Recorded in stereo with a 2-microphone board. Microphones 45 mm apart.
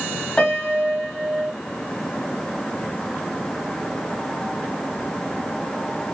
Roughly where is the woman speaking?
No woman speaking in this recording.